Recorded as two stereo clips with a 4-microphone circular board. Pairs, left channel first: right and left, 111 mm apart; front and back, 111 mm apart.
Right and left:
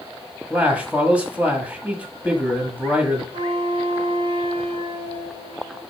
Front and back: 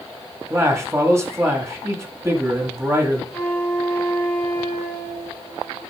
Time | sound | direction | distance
0.5 | a man speaking | 155° left | 1.5 m
3.3 | a flute | 80° left | 2 m